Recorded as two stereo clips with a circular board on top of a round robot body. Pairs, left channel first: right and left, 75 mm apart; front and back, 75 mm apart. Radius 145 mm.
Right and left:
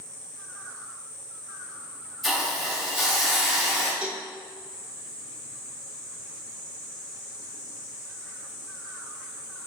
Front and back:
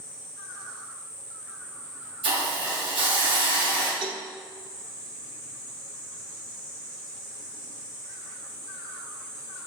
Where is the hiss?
175° right, 1.4 m.